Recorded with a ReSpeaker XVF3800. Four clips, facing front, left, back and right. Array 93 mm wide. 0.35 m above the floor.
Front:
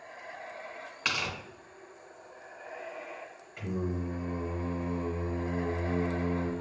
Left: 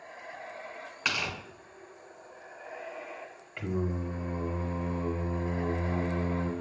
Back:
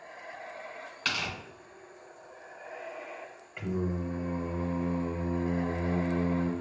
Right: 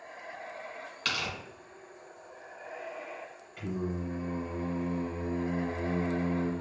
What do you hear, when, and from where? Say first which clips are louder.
1.1 s tearing paper: left 2 dB, front 1 dB; 55° left, 1.3 m
3.6 s singing: left 2 dB, back 2 dB; 120° left, 0.7 m